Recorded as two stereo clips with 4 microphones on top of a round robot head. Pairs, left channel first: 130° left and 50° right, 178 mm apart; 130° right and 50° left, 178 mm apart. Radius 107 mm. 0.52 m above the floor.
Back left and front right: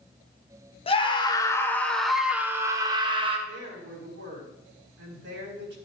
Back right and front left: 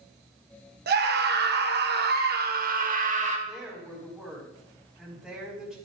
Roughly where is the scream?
Left.